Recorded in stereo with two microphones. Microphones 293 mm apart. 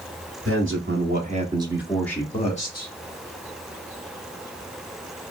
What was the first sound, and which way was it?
A man speaking, 45° right (ahead or behind).